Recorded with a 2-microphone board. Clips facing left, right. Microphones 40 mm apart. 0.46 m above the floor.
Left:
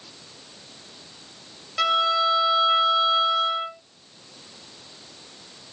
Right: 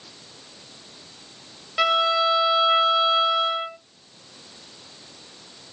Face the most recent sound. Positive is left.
turn(degrees=-15)  # may be behind; listen again after turning